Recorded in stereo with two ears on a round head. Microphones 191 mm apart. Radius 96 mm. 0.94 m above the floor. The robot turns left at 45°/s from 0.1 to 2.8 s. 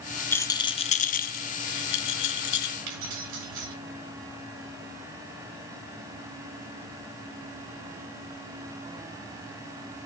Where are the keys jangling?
70° right (ahead or behind), 4.5 m.